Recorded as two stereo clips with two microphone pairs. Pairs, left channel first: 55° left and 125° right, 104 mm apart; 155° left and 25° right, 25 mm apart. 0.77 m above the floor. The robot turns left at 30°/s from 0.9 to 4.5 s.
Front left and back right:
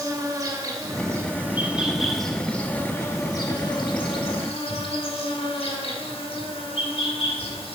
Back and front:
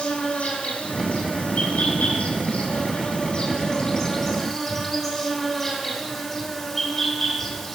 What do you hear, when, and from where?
0.0 s an insect: straight behind, 1.3 m; by 7.8 s 75° left, 1.3 m